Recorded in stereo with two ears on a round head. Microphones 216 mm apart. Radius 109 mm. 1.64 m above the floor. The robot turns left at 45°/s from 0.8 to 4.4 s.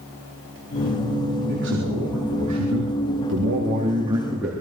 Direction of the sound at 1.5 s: 45° right.